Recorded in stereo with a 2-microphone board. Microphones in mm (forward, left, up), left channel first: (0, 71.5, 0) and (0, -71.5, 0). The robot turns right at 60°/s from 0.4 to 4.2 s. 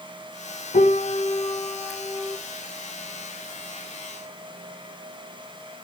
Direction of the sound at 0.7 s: 110° left.